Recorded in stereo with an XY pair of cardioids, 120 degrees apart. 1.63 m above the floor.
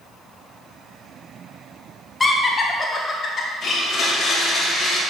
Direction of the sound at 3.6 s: 55° left.